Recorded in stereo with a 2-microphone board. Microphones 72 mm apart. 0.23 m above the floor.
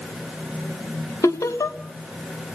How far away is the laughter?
About 2 m.